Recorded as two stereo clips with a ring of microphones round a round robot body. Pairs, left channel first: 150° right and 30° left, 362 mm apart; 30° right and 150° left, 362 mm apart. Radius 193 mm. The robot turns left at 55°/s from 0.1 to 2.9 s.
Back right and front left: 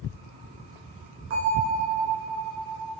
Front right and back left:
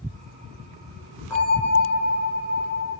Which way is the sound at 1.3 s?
55° left.